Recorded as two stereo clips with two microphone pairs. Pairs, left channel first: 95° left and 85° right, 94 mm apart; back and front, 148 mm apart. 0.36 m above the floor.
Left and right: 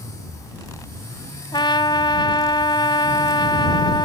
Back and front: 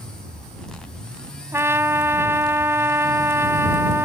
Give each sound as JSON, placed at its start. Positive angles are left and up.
{"t": 1.5, "sound": "a trumpet", "azimuth_deg": 70}